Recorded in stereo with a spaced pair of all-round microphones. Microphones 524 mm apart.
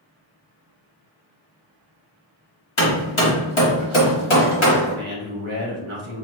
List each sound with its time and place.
2.8 s hammering: 60° left (ahead or behind), 1.4 m
4.9 s a man speaking: 60° right (ahead or behind), 1.2 m